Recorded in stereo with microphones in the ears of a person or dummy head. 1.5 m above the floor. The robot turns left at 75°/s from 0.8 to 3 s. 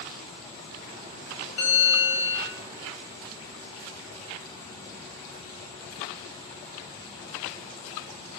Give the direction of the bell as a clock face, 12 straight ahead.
8 o'clock.